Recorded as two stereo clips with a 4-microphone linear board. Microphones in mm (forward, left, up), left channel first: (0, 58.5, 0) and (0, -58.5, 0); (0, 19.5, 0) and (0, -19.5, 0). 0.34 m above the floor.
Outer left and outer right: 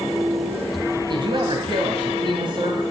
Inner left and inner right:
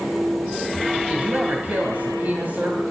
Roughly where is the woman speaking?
Right.